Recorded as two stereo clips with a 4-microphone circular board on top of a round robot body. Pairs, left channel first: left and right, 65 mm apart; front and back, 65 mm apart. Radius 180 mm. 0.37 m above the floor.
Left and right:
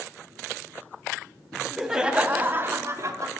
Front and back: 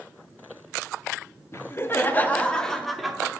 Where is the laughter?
5° left, 1.1 m; by 3.3 s 100° right, 1.2 m.